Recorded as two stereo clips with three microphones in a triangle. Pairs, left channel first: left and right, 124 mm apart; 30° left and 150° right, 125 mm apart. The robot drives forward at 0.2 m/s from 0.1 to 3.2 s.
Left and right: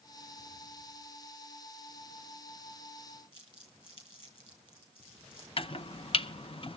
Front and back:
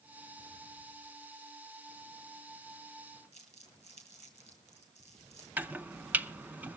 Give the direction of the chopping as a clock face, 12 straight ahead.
8 o'clock.